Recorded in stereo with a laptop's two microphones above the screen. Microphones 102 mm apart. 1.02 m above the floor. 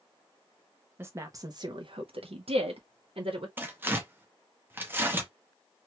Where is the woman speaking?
25° right (ahead or behind), 0.7 m; by 3.5 s 60° right (ahead or behind), 1.0 m.